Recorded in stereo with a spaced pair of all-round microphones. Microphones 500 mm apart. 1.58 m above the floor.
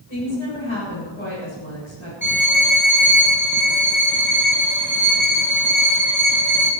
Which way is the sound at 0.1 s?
70° left (ahead or behind).